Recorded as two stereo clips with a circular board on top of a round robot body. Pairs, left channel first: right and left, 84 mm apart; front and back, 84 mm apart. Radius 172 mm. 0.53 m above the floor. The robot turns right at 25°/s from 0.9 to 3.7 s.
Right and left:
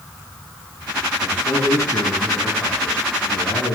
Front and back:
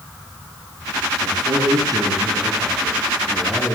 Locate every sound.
1.2 s a man speaking: 155° right, 9.5 m; by 3.8 s 90° right, 9.5 m